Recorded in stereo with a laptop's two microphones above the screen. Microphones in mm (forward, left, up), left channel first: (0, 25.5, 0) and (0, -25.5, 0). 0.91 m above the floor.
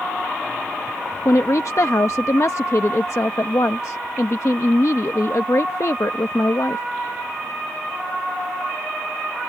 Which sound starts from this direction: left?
A woman speaking, at 1.2 s.